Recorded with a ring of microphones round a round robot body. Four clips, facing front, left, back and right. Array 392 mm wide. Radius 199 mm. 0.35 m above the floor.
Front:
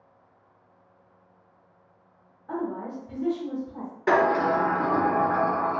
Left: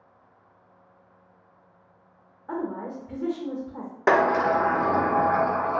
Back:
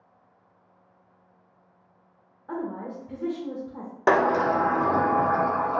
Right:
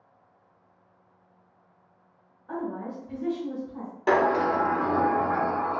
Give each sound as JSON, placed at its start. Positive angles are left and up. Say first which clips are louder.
{"t": 2.5, "sound": "a woman speaking", "louder": "left 2 dB, front 1 dB", "azimuth_deg": 115, "distance_m": 0.9}
{"t": 4.1, "sound": "a sliding door", "louder": "left 2 dB, even", "azimuth_deg": 150, "distance_m": 0.5}